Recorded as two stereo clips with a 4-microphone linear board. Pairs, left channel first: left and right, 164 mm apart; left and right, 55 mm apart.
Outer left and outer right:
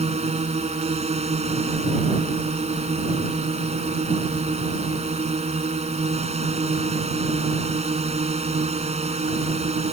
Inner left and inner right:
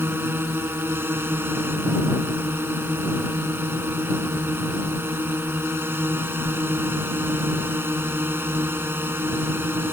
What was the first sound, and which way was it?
A drone, 40° right (ahead or behind).